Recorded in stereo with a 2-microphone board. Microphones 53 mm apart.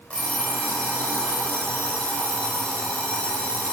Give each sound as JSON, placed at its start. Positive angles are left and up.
{"t": 0.1, "sound": "an alarm clock", "side_deg": 25, "distance_m": 2.0}